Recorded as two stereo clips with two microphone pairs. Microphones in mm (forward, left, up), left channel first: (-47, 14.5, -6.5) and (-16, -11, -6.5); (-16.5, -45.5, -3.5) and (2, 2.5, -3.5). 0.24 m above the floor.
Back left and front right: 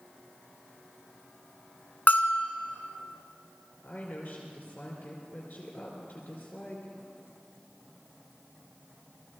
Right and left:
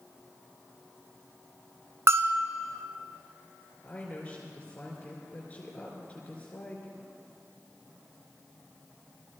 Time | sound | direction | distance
2.1 | a bell | 100° left | 0.8 m
3.8 | a woman speaking | 175° right | 3 m